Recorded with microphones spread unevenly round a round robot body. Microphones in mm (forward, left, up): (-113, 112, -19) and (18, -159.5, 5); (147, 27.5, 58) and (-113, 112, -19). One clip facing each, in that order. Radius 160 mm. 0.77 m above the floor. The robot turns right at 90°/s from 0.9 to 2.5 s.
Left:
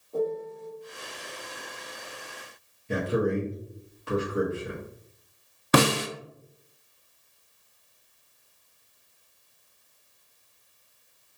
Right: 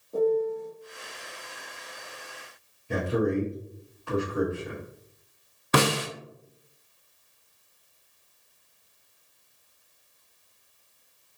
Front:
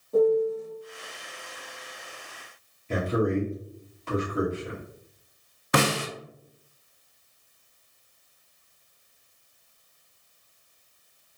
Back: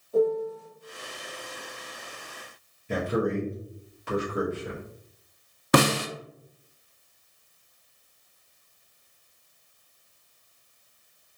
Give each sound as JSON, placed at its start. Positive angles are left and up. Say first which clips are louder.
{"t": 0.1, "sound": "a piano", "louder": "right 5 dB, front 3 dB", "azimuth_deg": 5, "distance_m": 1.0}
{"t": 2.9, "sound": "a man speaking", "louder": "even, front 1 dB", "azimuth_deg": 145, "distance_m": 1.0}
{"t": 5.7, "sound": "a snare drum", "louder": "left 3 dB, back 4 dB", "azimuth_deg": 115, "distance_m": 0.5}